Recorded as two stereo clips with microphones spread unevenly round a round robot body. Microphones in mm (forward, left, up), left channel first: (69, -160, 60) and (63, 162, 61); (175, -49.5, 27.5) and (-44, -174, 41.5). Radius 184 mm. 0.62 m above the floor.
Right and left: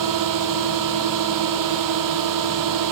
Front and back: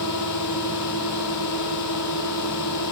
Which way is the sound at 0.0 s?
65° left.